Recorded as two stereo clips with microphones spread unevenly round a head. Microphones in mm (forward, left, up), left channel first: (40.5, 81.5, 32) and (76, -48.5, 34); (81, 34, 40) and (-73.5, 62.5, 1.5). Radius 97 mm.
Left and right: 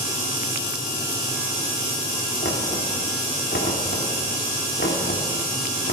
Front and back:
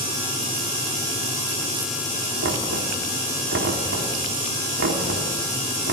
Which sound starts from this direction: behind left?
Knocking, at 2.4 s.